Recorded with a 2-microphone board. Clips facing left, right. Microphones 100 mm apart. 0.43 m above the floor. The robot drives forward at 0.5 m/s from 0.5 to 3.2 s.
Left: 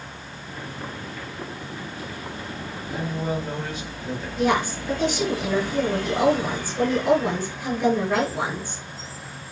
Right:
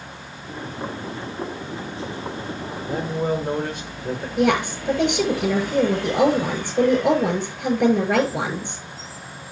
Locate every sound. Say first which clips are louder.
2.9 s a man speaking: right 4 dB; 60° right (ahead or behind), 1.8 m
4.4 s a woman speaking: right 2 dB; 75° right (ahead or behind), 6.5 m